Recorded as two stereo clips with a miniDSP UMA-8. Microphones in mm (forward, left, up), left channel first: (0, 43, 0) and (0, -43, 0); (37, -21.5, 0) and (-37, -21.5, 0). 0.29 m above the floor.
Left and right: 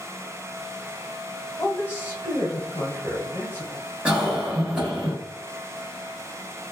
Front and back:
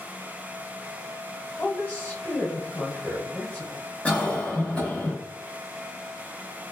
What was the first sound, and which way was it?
A woman speaking, 45° left.